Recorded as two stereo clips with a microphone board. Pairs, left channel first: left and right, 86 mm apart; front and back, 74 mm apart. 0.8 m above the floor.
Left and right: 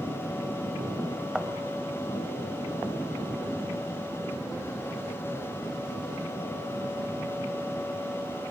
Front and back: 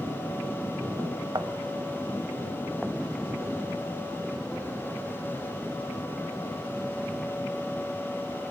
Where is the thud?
170° right, 1.3 m.